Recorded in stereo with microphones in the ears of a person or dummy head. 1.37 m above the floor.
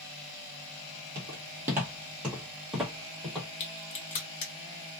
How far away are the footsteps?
About 1.4 m.